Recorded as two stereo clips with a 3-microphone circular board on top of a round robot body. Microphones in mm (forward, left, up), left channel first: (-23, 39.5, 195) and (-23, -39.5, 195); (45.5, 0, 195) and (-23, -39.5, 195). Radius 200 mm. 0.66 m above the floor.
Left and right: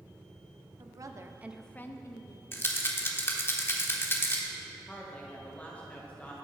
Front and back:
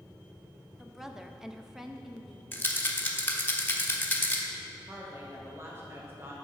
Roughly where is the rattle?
Ahead left.